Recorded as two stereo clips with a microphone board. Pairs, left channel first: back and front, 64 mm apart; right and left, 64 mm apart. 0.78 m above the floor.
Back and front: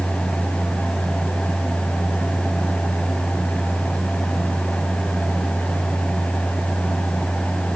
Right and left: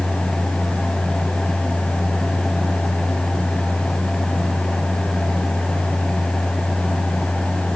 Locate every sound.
Only background noise.